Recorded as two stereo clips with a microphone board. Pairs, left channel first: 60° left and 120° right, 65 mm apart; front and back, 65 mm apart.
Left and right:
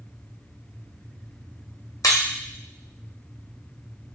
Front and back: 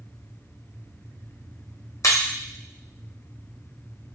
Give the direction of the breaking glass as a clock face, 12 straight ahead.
11 o'clock.